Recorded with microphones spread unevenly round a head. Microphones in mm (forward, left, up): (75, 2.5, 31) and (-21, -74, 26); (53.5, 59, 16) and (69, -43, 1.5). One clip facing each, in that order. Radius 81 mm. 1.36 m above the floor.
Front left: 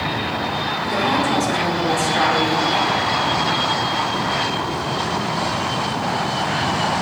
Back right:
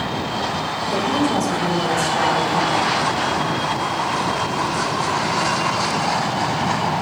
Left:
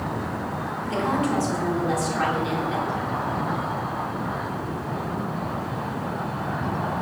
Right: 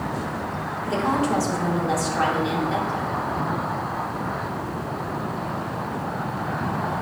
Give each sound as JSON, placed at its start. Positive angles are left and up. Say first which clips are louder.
{"t": 0.8, "sound": "a woman speaking", "louder": "even, right 2 dB", "azimuth_deg": -25, "distance_m": 1.9}